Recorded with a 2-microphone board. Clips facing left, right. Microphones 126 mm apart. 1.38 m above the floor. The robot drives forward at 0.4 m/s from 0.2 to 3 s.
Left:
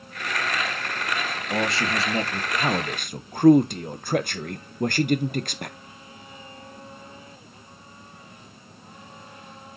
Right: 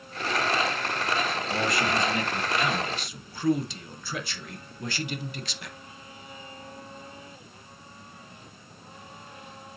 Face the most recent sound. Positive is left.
turn(degrees=50)  # may be behind; listen again after turning